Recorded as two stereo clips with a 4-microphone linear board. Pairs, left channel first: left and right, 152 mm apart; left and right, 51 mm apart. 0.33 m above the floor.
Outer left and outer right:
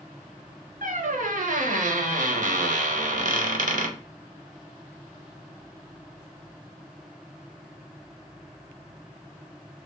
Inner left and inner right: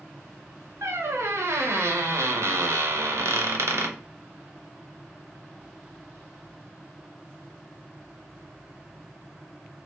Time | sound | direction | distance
0.8 | a squeak | 60° right (ahead or behind) | 0.6 m